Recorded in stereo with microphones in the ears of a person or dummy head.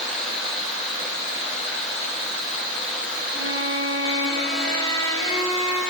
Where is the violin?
10° right (ahead or behind), 0.9 m.